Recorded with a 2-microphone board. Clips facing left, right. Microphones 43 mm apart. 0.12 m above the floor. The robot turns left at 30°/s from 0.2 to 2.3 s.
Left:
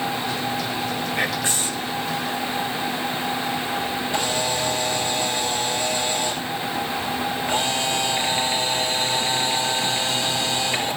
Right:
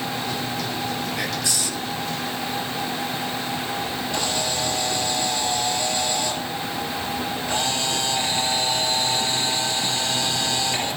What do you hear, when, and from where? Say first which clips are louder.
1.2 s whispering: left 3 dB; 30° left (ahead or behind), 1.2 m; by 1.9 s 35° left (ahead or behind), 1.2 m
4.1 s a camera shutter: left 2 dB; 25° left (ahead or behind), 2 m